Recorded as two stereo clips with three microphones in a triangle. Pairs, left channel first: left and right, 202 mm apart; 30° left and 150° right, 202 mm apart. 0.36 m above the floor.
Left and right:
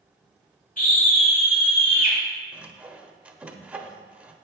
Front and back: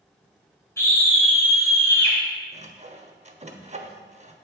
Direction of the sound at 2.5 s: 170° right.